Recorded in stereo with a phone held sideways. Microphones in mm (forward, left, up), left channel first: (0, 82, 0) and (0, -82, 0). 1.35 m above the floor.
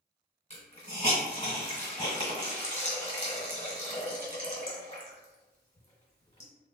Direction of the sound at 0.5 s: 40° left (ahead or behind).